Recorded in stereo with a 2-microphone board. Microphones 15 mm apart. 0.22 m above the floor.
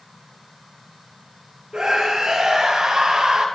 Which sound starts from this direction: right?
A scream, at 1.7 s.